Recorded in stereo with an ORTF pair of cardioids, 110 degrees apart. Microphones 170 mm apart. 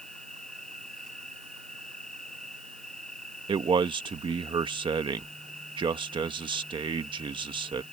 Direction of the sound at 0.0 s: 5° left.